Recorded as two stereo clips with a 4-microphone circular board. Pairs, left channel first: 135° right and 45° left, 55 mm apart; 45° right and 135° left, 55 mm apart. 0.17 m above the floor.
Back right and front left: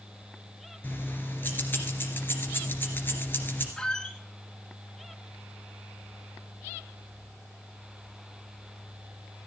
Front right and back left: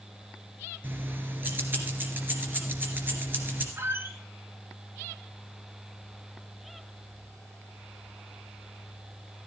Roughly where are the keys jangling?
Behind.